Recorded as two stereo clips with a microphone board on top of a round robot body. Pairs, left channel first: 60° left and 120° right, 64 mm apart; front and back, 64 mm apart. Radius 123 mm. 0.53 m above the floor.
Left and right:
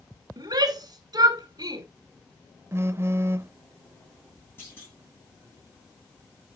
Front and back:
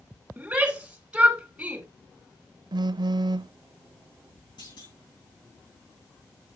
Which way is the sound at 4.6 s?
Straight ahead.